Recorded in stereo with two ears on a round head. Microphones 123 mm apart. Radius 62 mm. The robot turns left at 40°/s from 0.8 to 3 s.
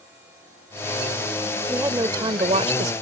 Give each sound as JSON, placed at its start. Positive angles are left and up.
{"t": 1.7, "sound": "a woman speaking", "azimuth_deg": -15}